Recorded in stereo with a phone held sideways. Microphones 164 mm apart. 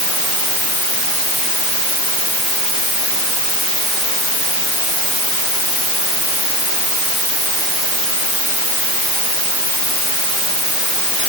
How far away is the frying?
I don't hear frying.